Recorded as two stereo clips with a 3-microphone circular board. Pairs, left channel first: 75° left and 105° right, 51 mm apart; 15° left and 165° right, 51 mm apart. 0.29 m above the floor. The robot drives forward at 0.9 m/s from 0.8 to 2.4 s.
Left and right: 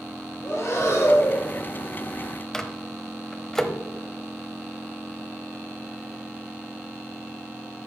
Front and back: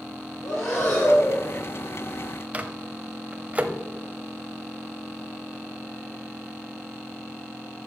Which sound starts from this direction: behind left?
A microwave, at 2.5 s.